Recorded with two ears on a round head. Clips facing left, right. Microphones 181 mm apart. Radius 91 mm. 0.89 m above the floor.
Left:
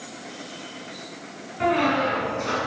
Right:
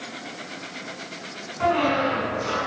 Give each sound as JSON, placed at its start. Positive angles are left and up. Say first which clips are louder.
{"t": 1.6, "sound": "a squeak", "louder": "even", "side_deg": 25, "distance_m": 4.0}